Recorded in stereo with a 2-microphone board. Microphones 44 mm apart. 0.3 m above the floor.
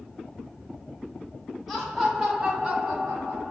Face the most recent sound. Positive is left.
turn(degrees=-30)  # may be behind; listen again after turning